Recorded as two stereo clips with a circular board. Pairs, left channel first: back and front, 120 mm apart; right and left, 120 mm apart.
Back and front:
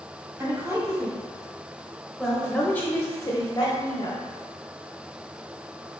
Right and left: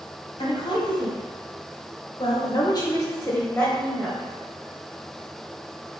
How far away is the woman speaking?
About 1.7 m.